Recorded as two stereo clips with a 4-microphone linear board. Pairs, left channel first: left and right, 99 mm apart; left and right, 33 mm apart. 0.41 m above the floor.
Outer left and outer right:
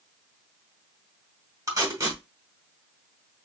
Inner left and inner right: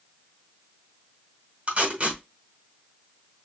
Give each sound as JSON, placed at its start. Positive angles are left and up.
{"t": 1.7, "sound": "tape being pulled", "side_deg": -35, "distance_m": 2.0}